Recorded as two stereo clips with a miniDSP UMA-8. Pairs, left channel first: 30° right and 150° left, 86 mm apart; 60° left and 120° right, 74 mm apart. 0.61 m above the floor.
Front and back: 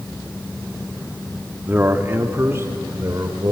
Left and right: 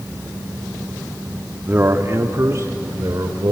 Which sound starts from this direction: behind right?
A man speaking, at 1.7 s.